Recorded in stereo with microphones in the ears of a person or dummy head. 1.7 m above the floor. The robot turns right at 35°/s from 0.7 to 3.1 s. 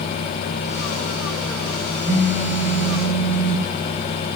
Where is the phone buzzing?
20° right, 1.1 m; by 3.7 s 15° left, 1.1 m.